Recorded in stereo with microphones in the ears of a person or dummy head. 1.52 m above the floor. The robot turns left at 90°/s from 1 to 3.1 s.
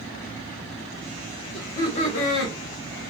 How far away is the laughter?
About 0.9 m.